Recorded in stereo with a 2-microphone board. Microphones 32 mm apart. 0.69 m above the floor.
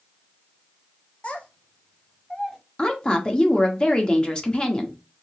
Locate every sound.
1.2 s a child speaking: 35° left (ahead or behind), 0.8 m; by 2.6 s 20° left (ahead or behind), 1.6 m
2.8 s a woman speaking: 25° left (ahead or behind), 0.8 m